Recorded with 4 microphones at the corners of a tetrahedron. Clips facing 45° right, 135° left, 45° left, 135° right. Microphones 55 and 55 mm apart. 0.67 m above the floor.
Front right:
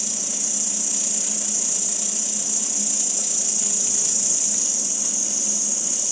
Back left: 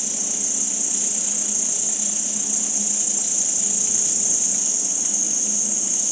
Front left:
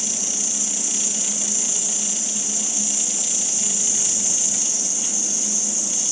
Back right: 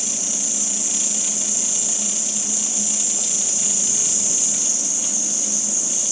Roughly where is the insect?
Ahead right.